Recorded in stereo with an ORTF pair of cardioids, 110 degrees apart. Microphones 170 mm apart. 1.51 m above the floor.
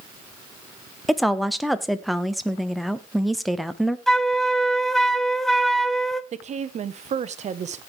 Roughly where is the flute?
Ahead.